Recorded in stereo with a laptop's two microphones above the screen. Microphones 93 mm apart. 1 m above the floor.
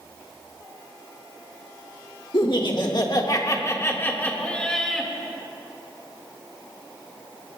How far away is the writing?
I don't hear writing.